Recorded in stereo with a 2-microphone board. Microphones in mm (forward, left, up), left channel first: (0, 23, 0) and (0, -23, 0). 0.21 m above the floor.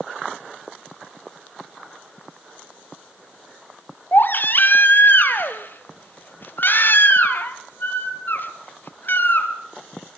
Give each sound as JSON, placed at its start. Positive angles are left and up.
{"t": 4.1, "sound": "a baby crying", "side_deg": 50, "distance_m": 1.5}